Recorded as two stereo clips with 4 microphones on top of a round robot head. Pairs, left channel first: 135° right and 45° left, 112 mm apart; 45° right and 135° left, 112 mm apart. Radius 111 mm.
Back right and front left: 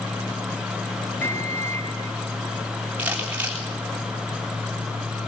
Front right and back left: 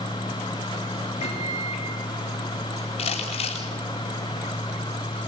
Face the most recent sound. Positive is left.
turn(degrees=-30)